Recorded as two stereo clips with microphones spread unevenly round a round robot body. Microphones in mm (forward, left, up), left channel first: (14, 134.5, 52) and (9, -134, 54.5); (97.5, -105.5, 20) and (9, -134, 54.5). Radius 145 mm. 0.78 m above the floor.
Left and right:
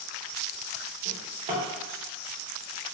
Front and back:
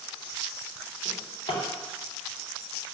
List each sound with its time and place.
1.1 s a drawer: 25° right, 0.7 m